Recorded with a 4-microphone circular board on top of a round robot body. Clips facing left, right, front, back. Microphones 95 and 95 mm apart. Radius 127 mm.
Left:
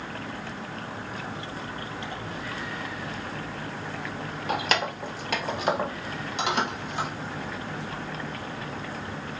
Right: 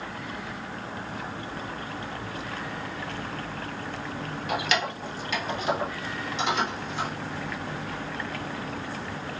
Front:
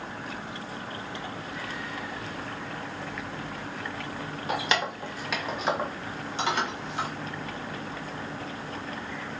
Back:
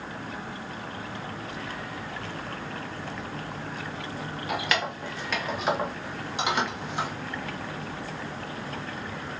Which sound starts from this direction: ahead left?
Keys jangling, at 4.5 s.